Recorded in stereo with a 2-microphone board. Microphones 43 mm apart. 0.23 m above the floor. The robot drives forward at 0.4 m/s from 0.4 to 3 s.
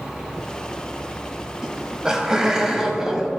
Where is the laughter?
15° right (ahead or behind), 0.9 m.